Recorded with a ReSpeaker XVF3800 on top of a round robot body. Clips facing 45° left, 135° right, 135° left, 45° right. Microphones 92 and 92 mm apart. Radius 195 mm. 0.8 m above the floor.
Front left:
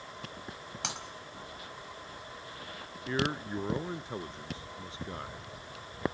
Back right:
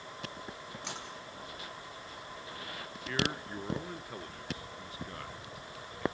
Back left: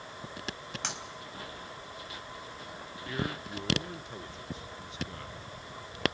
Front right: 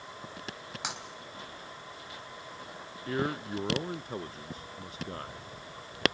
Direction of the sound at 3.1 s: 15° right.